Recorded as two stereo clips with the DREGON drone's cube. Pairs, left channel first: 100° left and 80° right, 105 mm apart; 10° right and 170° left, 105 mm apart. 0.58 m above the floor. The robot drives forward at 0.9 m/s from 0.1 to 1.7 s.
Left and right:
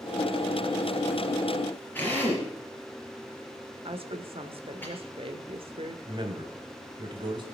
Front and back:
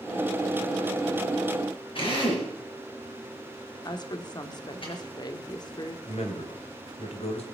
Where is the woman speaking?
60° right, 1.4 m.